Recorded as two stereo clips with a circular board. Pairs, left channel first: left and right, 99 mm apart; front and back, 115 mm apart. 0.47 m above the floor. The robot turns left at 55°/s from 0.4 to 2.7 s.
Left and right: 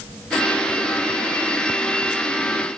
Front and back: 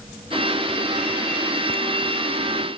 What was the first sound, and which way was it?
Only background noise.